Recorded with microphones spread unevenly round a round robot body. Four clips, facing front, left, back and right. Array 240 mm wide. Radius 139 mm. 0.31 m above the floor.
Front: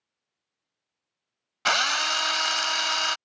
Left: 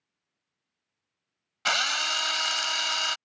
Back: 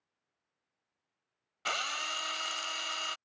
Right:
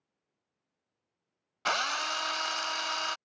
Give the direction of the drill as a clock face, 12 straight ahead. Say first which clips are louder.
Left 2 dB, front 11 dB; 11 o'clock.